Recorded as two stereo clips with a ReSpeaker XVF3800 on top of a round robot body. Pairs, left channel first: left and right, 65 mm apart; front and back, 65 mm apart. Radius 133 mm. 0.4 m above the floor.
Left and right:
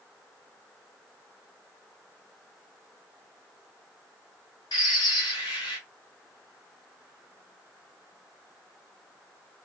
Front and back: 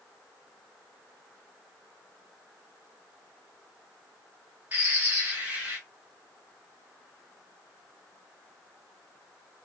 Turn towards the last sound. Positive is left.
turn(degrees=110)